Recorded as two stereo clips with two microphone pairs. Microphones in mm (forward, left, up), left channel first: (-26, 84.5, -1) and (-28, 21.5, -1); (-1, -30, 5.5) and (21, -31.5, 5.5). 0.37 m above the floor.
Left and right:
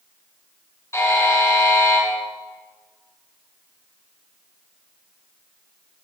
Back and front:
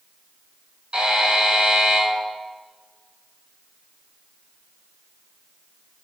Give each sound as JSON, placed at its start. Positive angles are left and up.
{"t": 0.9, "sound": "a buzzer", "azimuth_deg": 45, "distance_m": 4.5}